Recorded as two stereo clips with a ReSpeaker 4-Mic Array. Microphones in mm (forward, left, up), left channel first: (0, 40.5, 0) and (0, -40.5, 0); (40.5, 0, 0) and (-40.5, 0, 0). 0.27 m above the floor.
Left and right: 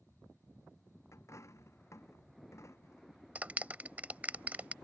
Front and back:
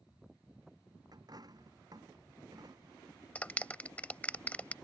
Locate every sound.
1.1 s a dropped coin: 145° left
3.4 s a clap: 50° right